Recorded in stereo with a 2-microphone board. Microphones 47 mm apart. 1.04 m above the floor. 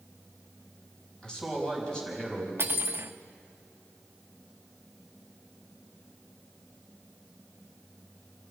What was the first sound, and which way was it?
A man speaking, 15° left (ahead or behind).